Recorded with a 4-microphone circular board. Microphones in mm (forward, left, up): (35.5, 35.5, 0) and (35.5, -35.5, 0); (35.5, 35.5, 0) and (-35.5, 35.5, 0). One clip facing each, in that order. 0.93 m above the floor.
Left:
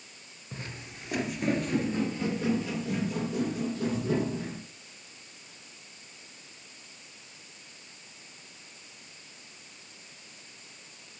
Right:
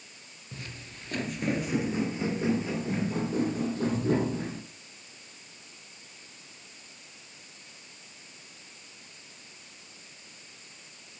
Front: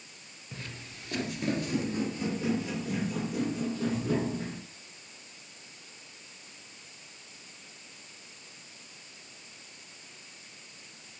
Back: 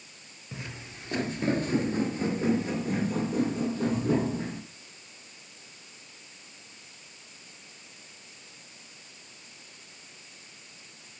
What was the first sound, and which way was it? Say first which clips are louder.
Footsteps: left 2 dB, back 3 dB; 125° left.